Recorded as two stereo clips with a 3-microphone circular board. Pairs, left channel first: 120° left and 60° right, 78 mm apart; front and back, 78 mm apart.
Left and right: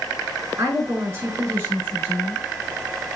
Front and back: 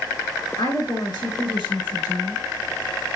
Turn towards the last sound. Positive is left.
turn(degrees=5)